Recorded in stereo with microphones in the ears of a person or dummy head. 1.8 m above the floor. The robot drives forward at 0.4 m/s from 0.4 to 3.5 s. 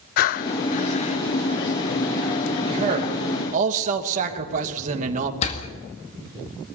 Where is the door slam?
35° left (ahead or behind), 2.0 m.